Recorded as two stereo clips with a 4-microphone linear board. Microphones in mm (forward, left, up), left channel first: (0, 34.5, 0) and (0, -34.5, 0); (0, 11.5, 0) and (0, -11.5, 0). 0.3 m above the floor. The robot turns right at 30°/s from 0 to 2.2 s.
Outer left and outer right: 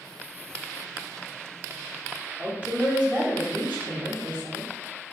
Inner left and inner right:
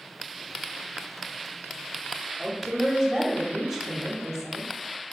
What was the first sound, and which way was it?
A woman speaking, 25° right (ahead or behind).